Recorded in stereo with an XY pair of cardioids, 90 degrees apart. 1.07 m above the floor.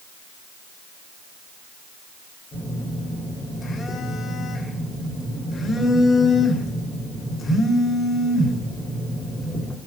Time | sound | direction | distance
2.5 | a phone buzzing | 45° left | 3 m